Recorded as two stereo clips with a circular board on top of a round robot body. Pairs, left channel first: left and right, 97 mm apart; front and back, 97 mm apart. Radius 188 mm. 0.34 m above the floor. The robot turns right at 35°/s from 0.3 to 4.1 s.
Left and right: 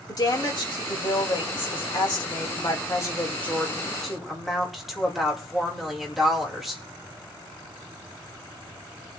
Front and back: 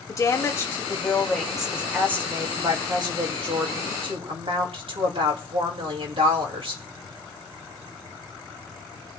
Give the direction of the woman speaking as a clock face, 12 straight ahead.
10 o'clock.